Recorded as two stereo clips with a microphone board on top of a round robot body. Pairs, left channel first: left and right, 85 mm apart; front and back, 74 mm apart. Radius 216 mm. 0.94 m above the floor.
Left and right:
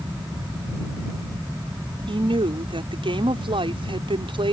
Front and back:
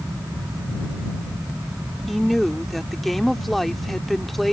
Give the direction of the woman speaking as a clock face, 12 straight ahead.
3 o'clock.